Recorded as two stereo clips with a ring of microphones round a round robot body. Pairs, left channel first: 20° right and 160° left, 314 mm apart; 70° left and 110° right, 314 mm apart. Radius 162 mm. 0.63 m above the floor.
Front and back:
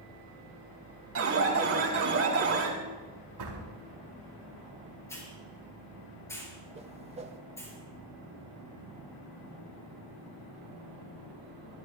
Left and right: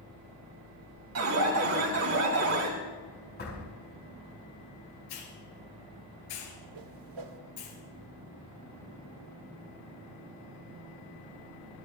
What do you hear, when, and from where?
1.1 s an alarm: 155° right, 3.5 m
3.4 s a door slam: 130° left, 4.5 m
5.1 s a hiss: 60° left, 4.5 m
6.8 s a whoosh: 130° right, 1.2 m